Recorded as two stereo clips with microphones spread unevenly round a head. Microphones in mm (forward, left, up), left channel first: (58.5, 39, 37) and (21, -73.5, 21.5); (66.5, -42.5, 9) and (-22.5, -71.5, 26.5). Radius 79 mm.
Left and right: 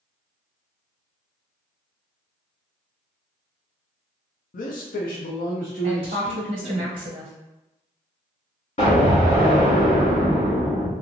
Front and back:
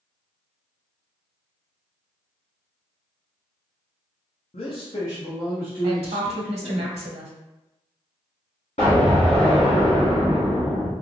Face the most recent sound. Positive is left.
turn(degrees=65)